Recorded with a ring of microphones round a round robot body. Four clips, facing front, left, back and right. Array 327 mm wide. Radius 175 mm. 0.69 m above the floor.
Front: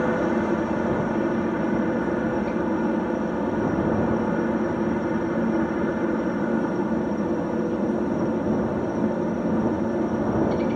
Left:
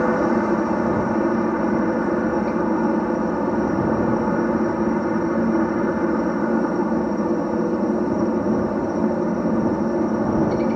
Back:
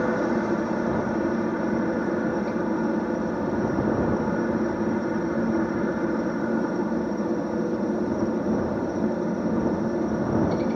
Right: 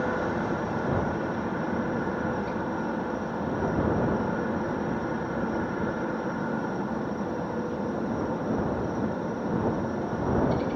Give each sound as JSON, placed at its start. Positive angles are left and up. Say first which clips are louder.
{"t": 0.0, "sound": "a helicopter", "louder": "left 9 dB, front 1 dB", "azimuth_deg": 85}